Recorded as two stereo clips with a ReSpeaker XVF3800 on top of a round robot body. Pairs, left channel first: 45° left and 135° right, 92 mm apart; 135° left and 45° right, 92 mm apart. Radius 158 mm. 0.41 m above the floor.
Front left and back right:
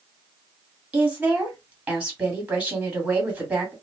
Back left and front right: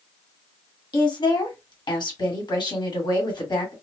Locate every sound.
0.9 s a woman speaking: 155° left, 1.9 m